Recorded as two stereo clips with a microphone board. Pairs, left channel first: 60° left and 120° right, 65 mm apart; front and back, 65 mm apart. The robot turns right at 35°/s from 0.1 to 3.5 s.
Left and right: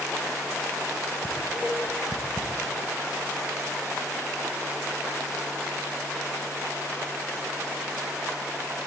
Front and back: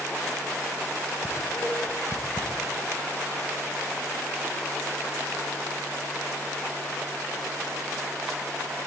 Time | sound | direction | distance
1.2 | dishes clattering | 60° right | 7 m